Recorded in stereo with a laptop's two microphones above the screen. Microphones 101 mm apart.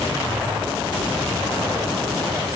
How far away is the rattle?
No rattle in this recording.